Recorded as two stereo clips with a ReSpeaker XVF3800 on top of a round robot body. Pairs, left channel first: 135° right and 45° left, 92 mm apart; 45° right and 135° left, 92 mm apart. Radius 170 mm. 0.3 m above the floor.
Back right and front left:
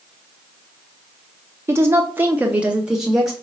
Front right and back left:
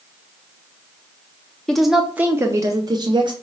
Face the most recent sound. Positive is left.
turn(degrees=130)